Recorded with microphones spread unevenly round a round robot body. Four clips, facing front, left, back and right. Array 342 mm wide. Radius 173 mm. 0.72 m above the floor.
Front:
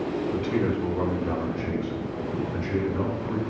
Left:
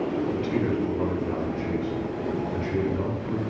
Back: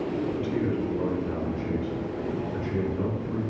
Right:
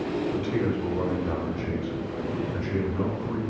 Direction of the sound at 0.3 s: 5° right.